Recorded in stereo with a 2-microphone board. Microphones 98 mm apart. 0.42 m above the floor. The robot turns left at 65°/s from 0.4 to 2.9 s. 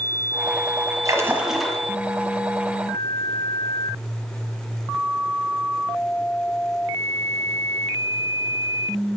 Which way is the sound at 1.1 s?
145° right.